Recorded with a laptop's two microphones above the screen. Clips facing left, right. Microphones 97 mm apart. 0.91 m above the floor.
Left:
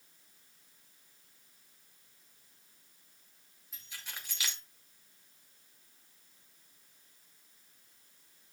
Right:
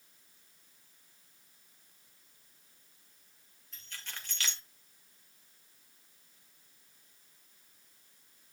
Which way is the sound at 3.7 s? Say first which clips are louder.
Even; 10° left (ahead or behind).